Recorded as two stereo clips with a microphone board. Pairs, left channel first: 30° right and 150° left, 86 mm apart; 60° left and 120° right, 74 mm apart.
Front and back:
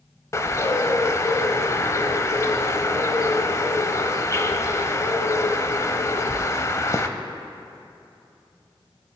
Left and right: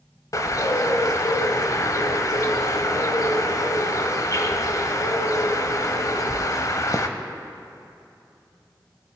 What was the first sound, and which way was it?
A bird, 25° left.